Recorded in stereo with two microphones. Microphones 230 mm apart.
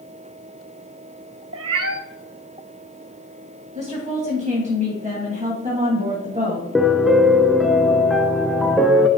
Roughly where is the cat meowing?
Right.